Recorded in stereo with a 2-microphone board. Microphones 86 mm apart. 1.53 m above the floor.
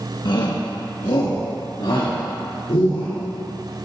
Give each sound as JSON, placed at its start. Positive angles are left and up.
{"t": 0.2, "sound": "a shout", "side_deg": 55, "distance_m": 1.7}